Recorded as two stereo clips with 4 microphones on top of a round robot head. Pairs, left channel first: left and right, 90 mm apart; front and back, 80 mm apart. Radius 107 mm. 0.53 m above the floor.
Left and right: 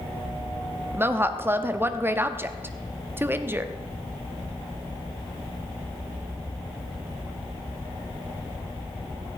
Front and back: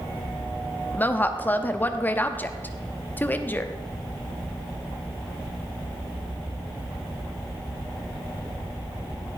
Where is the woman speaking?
45° right, 0.9 m.